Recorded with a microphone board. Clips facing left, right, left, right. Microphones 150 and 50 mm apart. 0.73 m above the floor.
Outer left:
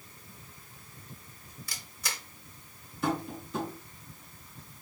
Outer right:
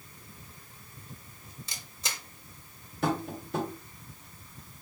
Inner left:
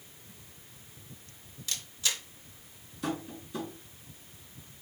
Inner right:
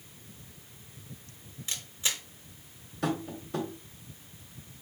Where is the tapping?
70° right (ahead or behind), 1.4 m.